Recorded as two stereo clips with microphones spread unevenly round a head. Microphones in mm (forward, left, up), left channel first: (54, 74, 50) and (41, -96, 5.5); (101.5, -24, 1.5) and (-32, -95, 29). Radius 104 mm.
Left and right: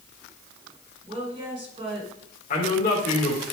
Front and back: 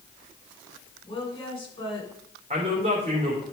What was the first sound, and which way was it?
A woman speaking, 30° right.